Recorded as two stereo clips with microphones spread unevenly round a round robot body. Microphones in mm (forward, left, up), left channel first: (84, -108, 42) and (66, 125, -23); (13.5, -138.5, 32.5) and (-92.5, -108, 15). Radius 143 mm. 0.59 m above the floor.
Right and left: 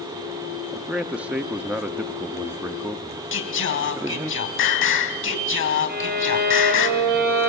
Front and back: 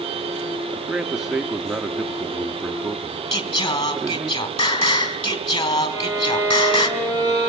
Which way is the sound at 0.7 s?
110° left.